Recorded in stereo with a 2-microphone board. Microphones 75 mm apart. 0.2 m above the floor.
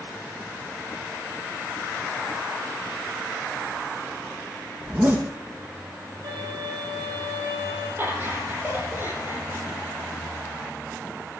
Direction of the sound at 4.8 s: 30° right (ahead or behind).